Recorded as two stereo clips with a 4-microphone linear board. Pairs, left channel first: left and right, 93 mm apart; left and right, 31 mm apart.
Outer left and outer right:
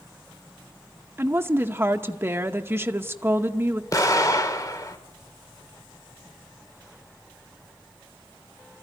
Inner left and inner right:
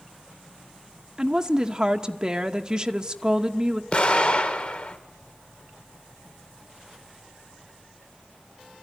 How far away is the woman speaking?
About 0.9 m.